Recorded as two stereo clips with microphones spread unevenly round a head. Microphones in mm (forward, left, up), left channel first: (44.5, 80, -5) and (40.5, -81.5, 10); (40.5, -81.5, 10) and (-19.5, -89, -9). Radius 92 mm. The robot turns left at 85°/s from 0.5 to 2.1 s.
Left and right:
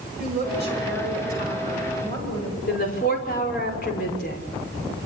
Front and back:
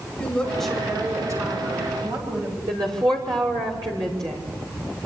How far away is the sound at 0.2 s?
About 9.5 m.